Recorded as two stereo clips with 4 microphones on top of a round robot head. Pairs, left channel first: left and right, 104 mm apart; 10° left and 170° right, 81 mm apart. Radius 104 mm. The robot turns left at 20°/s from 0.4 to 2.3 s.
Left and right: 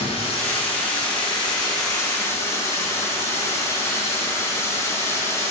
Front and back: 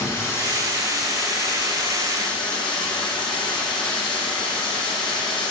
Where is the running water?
65° left, 1.9 m; by 5.5 s 25° left, 1.9 m.